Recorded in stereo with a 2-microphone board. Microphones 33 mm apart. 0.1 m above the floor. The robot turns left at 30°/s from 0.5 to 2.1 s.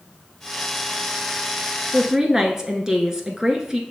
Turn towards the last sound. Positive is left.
turn(degrees=-20)  # may be behind; listen again after turning